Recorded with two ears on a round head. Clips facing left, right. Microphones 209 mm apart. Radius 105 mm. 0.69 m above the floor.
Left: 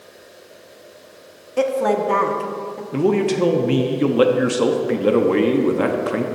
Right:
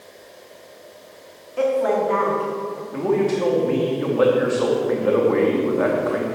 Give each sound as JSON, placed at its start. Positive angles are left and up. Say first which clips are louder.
{"t": 1.6, "sound": "a woman speaking", "louder": "left 1 dB", "side_deg": 55, "distance_m": 1.0}
{"t": 2.9, "sound": "a man speaking", "louder": "left 2 dB", "side_deg": 45, "distance_m": 0.6}